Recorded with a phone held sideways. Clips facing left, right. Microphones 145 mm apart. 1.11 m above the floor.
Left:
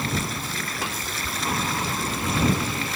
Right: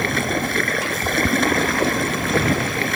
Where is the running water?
65° right (ahead or behind).